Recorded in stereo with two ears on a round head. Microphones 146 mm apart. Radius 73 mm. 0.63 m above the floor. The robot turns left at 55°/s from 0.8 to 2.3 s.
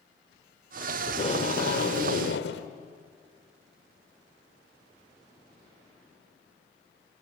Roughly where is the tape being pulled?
Behind left.